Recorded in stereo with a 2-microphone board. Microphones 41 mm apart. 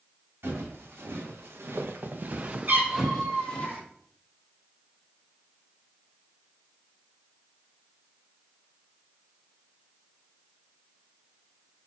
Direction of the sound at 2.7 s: 50° right (ahead or behind).